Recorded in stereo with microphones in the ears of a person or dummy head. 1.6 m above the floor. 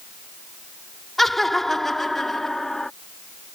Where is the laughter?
Centre (ahead or behind).